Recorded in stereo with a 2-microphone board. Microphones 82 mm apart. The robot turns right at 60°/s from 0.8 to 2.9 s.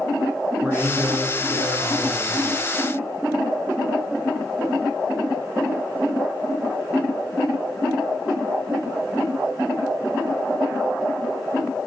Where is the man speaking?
5° right, 2 m; by 2.5 s 95° left, 2 m.